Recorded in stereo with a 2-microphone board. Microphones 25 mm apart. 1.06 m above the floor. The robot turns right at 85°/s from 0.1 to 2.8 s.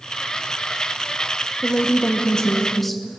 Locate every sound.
1.6 s a woman speaking: 70° left, 0.8 m; by 3.2 s 170° left, 0.8 m